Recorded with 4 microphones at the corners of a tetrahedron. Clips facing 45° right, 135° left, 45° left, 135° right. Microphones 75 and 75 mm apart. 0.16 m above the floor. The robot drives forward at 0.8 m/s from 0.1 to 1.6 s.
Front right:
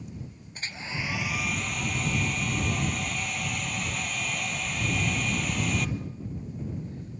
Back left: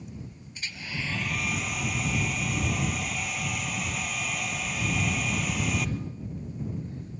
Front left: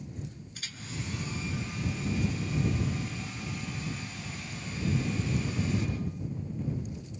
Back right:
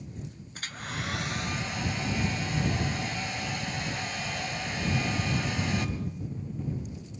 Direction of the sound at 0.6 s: 90° right.